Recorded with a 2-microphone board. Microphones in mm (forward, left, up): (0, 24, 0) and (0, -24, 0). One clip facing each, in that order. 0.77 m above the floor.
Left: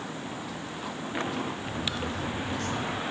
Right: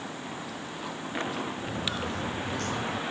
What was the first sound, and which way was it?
Footsteps, 45° right (ahead or behind).